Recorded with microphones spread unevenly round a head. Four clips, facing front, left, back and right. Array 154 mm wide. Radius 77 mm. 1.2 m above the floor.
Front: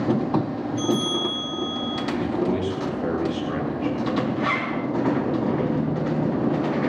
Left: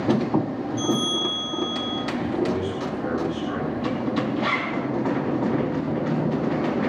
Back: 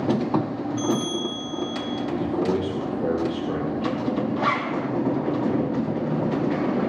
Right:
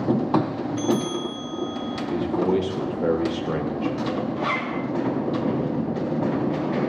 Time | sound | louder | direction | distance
0.8 | a bell | right 1 dB, front 1 dB | 140° right | 7 m
2.1 | a man speaking | right 4 dB, even | 110° right | 3.5 m
4.4 | a zipper | left 1 dB, back 1 dB | 175° right | 3 m